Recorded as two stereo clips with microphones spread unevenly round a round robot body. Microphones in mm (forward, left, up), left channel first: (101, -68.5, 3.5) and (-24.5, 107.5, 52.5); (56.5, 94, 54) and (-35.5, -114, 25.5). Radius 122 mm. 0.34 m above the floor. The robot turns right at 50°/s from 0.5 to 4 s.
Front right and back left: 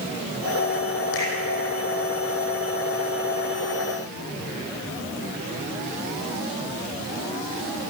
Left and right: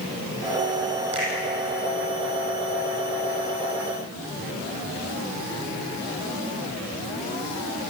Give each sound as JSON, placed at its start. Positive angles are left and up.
{"t": 1.1, "sound": "a finger snap", "azimuth_deg": -50, "distance_m": 10.0}